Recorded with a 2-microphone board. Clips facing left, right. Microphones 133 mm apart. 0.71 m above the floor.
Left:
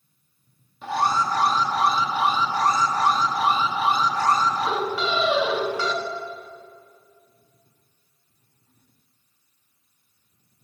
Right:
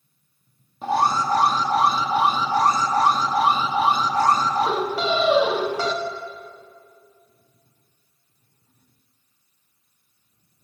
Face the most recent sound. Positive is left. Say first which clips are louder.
# right 2 dB
turn(degrees=-35)  # may be behind; listen again after turning